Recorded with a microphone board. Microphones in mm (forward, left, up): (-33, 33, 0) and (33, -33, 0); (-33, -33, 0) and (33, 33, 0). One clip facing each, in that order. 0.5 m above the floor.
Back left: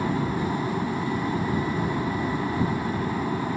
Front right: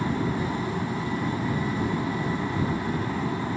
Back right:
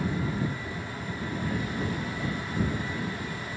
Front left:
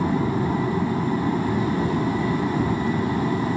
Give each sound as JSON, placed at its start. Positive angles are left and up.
{"t": 0.0, "sound": "an aircraft", "azimuth_deg": 60}